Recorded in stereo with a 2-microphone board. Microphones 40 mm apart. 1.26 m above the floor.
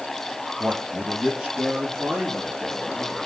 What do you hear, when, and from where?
0.6 s a man speaking: 40° right (ahead or behind), 0.7 m; by 3.3 s 10° right (ahead or behind), 3.5 m